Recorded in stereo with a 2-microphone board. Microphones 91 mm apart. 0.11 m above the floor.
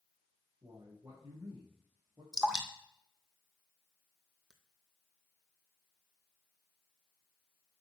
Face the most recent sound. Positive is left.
turn(degrees=-5)  # may be behind; listen again after turning